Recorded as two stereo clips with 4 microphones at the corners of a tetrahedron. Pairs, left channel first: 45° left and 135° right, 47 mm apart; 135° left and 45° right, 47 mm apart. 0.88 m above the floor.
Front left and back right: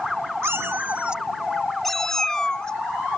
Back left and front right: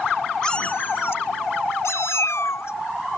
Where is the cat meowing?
155° right; by 3.2 s 115° left.